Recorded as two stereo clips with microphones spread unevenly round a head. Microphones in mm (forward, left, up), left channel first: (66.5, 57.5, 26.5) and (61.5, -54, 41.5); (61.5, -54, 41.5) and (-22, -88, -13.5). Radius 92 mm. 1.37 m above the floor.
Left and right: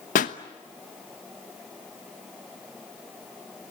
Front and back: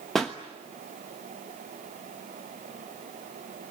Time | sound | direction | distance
0.1 | a pop | 100° left | 1.1 m